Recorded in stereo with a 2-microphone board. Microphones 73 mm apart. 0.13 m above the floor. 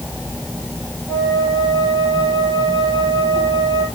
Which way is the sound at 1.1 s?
75° left (ahead or behind).